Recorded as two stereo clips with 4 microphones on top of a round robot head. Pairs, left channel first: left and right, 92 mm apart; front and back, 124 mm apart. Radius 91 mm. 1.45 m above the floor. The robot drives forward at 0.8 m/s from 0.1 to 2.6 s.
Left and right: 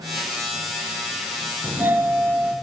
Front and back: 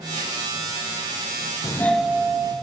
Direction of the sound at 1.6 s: 35° right.